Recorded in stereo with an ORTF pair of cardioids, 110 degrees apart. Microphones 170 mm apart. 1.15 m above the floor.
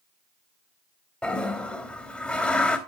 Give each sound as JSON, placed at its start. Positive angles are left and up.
{"t": 1.2, "sound": "a toilet flushing", "azimuth_deg": 5, "distance_m": 2.5}